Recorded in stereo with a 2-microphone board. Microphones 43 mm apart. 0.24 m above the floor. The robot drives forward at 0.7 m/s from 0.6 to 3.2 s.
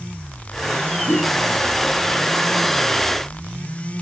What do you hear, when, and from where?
1.1 s a whoosh: 65° left (ahead or behind), 3 m